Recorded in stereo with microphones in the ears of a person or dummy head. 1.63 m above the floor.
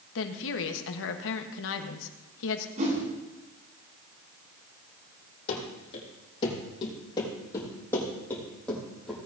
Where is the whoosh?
35° right (ahead or behind), 3.5 m.